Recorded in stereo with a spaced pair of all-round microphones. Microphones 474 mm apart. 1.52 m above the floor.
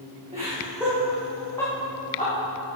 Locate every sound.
0.3 s laughter: 15° right (ahead or behind), 1.7 m; by 2.3 s 15° left (ahead or behind), 2.0 m